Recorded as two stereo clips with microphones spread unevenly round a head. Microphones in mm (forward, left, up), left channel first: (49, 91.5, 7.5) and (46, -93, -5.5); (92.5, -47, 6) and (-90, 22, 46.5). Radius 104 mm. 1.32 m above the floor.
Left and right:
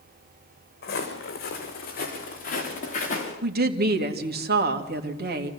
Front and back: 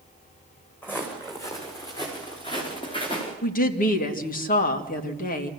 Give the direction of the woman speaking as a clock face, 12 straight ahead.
2 o'clock.